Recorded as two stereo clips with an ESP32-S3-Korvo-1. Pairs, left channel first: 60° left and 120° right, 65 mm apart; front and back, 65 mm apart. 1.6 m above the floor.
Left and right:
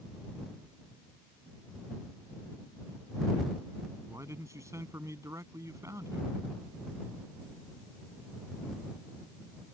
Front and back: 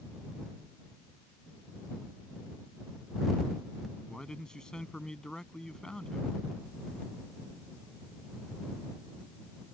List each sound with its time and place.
4.1 s a man speaking: 80° right